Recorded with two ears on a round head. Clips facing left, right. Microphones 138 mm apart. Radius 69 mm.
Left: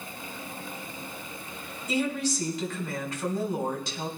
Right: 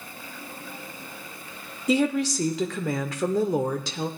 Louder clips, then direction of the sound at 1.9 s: Right 6 dB; 60° right (ahead or behind).